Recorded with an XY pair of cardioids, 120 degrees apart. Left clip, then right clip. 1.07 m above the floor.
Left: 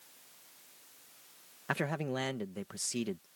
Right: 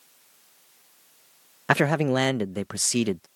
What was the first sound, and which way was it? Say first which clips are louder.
A man speaking: right 13 dB; 65° right.